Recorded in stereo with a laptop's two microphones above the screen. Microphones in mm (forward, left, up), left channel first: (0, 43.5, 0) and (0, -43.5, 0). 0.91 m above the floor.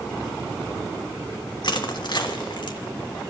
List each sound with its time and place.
1.6 s crushing: 60° left (ahead or behind), 1.4 m